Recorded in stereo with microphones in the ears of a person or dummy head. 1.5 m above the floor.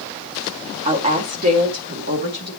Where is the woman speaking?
45° right (ahead or behind), 2 m; by 2.5 s 60° right (ahead or behind), 3.5 m.